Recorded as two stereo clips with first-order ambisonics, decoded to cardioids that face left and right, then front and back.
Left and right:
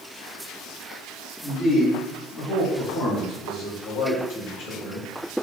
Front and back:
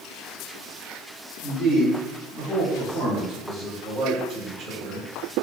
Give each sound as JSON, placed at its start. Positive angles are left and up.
{"t": 1.4, "sound": "a man speaking", "azimuth_deg": 40, "distance_m": 1.2}